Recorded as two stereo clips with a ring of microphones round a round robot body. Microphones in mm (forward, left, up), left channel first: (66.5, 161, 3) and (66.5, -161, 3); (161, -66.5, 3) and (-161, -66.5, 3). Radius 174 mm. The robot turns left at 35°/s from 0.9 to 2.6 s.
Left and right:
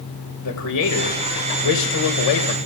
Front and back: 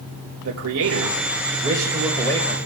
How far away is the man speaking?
About 2.5 m.